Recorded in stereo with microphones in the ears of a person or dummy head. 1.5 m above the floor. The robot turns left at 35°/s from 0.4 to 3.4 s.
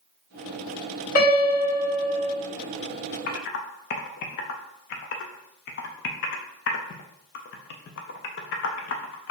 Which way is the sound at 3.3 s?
55° left (ahead or behind).